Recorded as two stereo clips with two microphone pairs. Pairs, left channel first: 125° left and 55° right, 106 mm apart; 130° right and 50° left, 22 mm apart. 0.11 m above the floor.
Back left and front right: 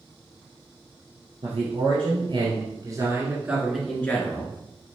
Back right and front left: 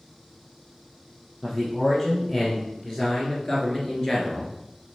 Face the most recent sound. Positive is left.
turn(degrees=175)